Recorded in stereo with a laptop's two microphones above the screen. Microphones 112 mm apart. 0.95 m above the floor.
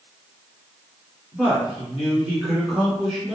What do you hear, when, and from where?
1.3 s a man speaking: 5° right (ahead or behind), 2.0 m